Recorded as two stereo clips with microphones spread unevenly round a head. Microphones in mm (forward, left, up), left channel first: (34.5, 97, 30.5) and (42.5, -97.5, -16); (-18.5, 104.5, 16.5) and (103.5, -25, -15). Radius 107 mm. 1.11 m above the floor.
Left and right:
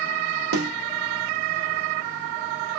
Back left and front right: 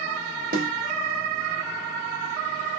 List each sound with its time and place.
0.5 s a snare drum: 95° right, 1.3 m